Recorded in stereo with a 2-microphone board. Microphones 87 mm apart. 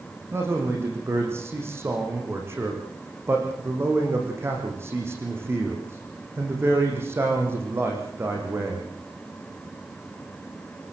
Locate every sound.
0.3 s a man speaking: 30° right (ahead or behind), 7.5 m